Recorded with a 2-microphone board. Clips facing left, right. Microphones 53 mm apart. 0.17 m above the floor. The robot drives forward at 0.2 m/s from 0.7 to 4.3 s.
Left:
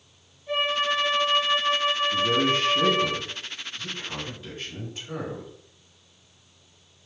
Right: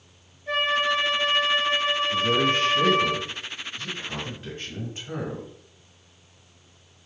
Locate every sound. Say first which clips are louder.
0.5 s a flute: right 2 dB; 55° right (ahead or behind), 1.6 m; by 3.1 s 45° right (ahead or behind), 1.8 m
2.1 s a man speaking: right 2 dB; 35° right (ahead or behind), 1.9 m; by 5.5 s 30° right (ahead or behind), 2 m